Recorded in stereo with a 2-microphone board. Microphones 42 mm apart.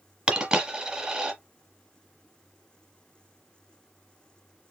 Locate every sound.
0.3 s a dropped coin: 20° right (ahead or behind), 1.1 m